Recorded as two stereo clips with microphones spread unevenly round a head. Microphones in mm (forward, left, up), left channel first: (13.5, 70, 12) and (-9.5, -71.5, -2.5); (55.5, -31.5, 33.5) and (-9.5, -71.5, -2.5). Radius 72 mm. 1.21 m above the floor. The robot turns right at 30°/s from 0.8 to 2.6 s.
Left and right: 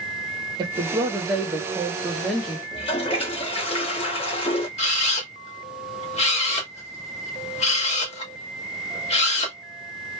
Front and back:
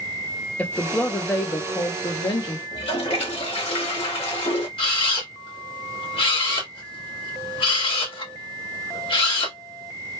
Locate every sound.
0.6 s a woman speaking: 60° right, 0.6 m; by 2.6 s 5° right, 0.6 m
2.7 s a toilet flushing: 30° left, 1.4 m
4.8 s a camera shutter: 30° left, 1.5 m